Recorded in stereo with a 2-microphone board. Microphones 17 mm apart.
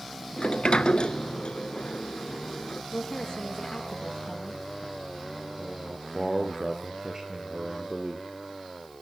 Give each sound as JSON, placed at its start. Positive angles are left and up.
{"t": 0.4, "sound": "a sliding door", "side_deg": 75, "distance_m": 0.8}
{"t": 2.9, "sound": "a woman speaking", "side_deg": 60, "distance_m": 6.5}
{"t": 5.6, "sound": "a man speaking", "side_deg": -35, "distance_m": 3.5}